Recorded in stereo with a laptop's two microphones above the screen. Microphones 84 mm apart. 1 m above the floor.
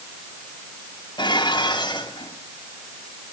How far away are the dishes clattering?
About 4 m.